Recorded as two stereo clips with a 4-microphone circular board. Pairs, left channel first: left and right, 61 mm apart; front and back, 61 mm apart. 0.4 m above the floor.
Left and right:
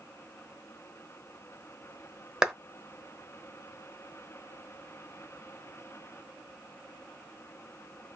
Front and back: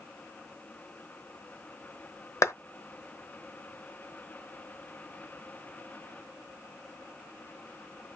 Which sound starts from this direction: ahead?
A clap, at 2.4 s.